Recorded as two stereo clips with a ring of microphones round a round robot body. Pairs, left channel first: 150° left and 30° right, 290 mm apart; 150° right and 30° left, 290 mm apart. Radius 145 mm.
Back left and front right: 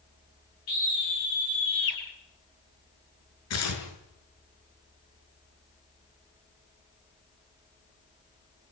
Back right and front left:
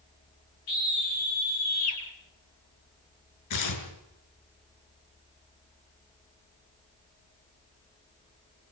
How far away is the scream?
About 9.5 m.